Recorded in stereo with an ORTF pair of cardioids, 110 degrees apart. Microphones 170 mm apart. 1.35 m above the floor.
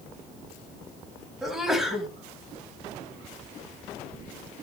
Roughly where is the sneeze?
Ahead.